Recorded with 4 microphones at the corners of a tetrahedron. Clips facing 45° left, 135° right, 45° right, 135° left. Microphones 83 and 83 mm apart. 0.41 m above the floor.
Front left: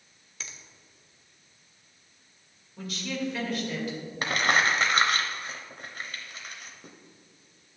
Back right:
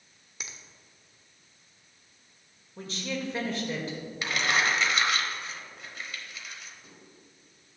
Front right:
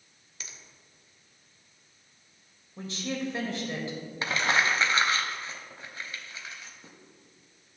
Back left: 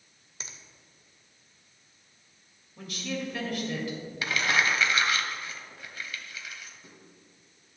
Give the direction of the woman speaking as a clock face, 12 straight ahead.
3 o'clock.